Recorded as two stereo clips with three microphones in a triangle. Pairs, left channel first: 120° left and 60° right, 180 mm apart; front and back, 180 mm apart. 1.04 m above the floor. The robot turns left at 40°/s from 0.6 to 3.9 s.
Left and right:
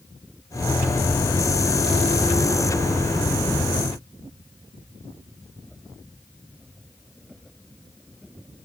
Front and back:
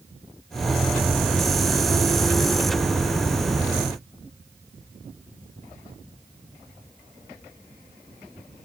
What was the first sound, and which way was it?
Only background noise.